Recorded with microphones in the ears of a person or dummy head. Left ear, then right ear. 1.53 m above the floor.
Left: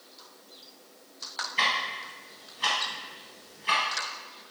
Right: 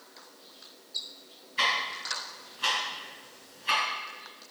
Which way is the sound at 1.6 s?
15° left (ahead or behind).